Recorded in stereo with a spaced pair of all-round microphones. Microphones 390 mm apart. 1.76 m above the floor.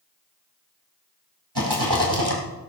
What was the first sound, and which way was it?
A rattle, 80° right.